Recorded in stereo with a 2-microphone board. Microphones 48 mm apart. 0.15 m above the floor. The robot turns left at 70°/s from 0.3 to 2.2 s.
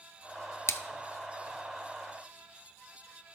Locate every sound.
0.7 s a splash: 65° left (ahead or behind), 0.6 m; by 0.8 s 55° left (ahead or behind), 0.6 m